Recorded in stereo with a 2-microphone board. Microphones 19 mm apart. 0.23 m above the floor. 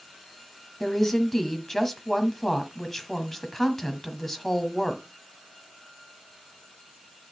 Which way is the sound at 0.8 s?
25° left (ahead or behind).